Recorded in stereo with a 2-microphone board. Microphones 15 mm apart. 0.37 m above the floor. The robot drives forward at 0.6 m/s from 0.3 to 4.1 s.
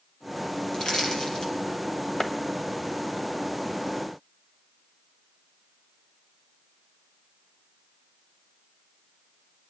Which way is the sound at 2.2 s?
30° left (ahead or behind).